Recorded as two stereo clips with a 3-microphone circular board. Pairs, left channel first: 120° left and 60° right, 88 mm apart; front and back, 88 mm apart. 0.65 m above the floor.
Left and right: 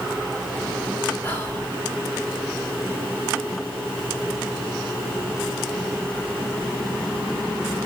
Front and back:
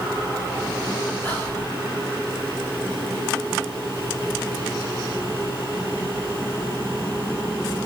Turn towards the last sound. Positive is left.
turn(degrees=55)